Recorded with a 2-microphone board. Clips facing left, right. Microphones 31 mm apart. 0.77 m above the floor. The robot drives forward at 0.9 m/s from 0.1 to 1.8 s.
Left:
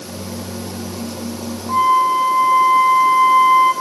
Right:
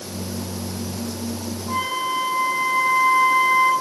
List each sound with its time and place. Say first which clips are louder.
1.7 s a flute: left 10 dB; 70° right (ahead or behind), 5.5 m